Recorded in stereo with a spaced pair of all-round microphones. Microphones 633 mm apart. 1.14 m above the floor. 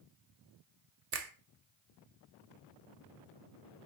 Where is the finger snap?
75° right (ahead or behind), 1.1 m.